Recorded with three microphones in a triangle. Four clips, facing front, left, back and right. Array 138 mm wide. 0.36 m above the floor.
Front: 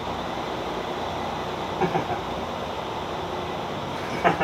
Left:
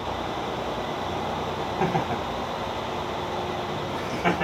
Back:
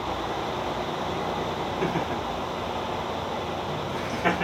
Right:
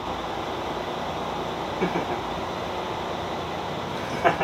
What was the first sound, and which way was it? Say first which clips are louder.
Laughter: left 1 dB, front 5 dB; 35° left.